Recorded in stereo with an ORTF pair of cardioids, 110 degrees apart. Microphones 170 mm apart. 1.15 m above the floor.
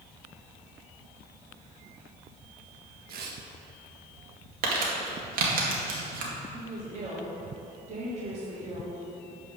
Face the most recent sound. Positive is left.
turn(degrees=-40)